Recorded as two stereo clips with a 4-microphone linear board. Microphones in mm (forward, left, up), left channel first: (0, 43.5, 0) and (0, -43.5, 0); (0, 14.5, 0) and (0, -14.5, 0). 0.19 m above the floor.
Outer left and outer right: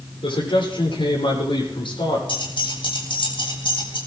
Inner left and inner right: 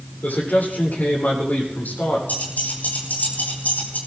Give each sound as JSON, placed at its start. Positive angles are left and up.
{"t": 0.2, "sound": "a man speaking", "side_deg": 80, "distance_m": 8.5}
{"t": 2.3, "sound": "keys jangling", "side_deg": 75, "distance_m": 6.5}